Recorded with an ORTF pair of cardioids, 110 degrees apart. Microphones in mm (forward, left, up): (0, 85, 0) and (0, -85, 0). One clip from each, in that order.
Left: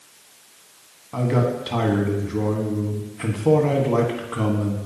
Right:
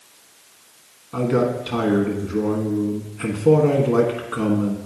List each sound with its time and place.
1.1 s a man speaking: 5° left, 1.3 m